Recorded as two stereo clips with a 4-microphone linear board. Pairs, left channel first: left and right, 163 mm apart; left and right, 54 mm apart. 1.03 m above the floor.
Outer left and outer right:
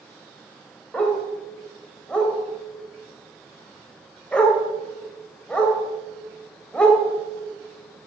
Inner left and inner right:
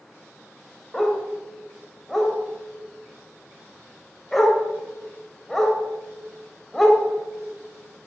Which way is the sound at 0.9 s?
5° left (ahead or behind).